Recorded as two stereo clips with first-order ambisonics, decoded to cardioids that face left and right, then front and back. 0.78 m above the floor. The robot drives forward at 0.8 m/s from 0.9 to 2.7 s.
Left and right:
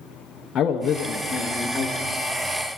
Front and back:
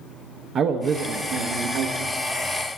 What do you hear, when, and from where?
0.6 s a man speaking: 135° left, 0.6 m; by 2.2 s 165° left, 1.4 m